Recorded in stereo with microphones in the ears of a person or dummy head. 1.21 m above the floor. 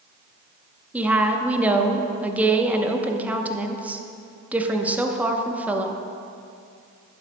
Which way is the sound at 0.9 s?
10° right (ahead or behind).